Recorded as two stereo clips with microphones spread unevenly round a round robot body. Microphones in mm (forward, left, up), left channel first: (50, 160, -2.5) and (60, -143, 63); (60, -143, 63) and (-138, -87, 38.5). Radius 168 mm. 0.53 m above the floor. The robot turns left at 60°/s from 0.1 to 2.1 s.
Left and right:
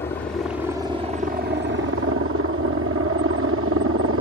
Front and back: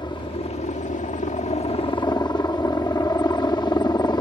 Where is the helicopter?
45° left; by 4.2 s 75° right.